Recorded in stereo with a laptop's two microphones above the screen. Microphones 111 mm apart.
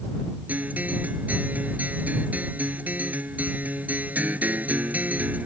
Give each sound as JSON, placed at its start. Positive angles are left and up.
{"t": 0.5, "sound": "a guitar", "side_deg": -15}